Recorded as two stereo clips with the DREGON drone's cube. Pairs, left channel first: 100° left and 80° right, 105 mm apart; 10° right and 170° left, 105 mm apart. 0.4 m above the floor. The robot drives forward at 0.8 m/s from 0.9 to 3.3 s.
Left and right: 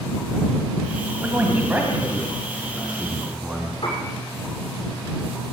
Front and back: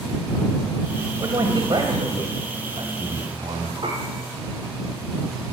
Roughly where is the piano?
Behind left.